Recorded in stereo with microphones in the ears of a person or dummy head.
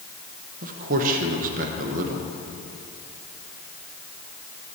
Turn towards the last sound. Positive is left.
turn(degrees=-50)  # may be behind; listen again after turning